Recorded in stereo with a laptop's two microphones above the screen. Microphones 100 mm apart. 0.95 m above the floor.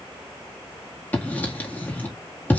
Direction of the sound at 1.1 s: 15° left (ahead or behind).